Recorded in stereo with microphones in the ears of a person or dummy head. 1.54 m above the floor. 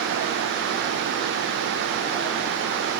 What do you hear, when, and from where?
Only background noise.